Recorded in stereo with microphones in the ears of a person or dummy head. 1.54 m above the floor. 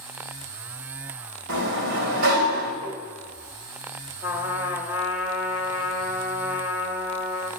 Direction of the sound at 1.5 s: 60° right (ahead or behind).